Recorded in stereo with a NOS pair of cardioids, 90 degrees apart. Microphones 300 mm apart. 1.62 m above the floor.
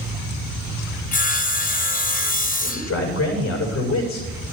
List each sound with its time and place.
1.1 s sawing: 25° left, 1.3 m
2.6 s a man speaking: 60° left, 6.5 m